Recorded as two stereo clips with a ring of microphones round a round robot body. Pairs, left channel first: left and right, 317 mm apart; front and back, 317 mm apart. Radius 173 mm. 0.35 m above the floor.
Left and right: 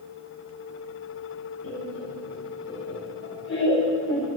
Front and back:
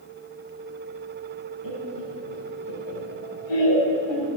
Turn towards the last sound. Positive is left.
turn(degrees=30)